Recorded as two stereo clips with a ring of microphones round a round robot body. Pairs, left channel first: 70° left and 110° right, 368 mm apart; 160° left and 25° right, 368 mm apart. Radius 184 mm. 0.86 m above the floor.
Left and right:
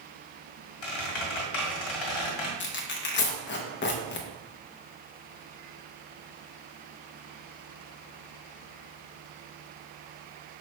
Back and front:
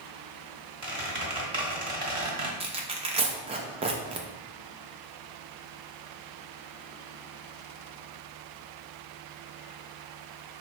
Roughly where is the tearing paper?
Ahead left.